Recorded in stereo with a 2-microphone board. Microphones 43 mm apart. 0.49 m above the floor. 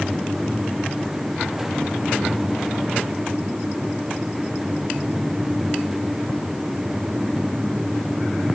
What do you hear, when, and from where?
Only background noise.